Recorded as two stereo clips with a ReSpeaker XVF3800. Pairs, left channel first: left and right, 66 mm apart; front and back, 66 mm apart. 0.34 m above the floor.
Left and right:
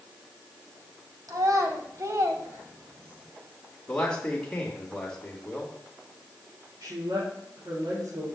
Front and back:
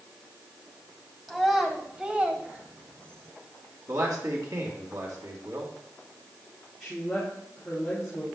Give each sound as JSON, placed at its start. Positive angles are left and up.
{"t": 1.3, "sound": "a child speaking", "azimuth_deg": -95, "distance_m": 1.5}
{"t": 3.9, "sound": "a man speaking", "azimuth_deg": 165, "distance_m": 2.5}
{"t": 6.8, "sound": "a woman speaking", "azimuth_deg": -85, "distance_m": 4.5}